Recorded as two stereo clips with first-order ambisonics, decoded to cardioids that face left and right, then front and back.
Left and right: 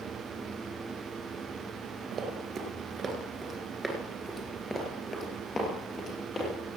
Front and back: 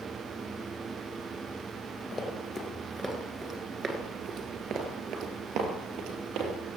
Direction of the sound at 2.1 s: 55° right.